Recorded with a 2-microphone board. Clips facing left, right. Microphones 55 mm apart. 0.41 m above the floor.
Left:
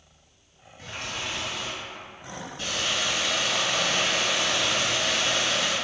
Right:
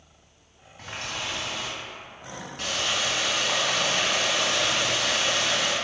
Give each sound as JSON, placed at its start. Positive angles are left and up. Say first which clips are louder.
{"t": 0.8, "sound": "a running tap", "louder": "right 1 dB", "side_deg": -70, "distance_m": 2.0}